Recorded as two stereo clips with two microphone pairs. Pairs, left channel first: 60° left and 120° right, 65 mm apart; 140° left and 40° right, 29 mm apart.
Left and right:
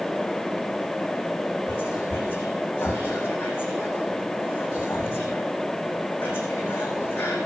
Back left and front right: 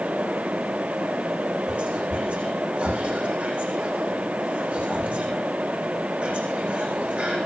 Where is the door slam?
I don't hear a door slam.